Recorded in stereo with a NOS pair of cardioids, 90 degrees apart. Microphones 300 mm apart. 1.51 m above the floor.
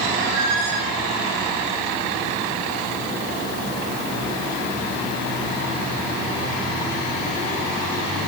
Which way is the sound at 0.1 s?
70° right.